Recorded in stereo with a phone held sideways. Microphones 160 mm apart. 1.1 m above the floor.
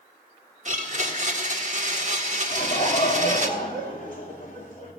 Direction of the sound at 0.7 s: 50° right (ahead or behind).